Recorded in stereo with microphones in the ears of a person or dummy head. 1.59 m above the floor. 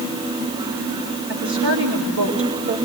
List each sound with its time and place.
1.3 s a woman speaking: 70° right (ahead or behind), 5 m